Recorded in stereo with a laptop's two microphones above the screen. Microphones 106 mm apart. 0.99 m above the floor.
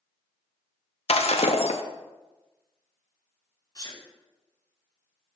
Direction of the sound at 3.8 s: 35° left (ahead or behind).